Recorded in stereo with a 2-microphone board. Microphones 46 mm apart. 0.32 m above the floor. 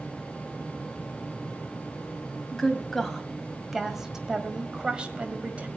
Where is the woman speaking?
10° left (ahead or behind), 2.5 m; by 5.7 s 30° right (ahead or behind), 2 m.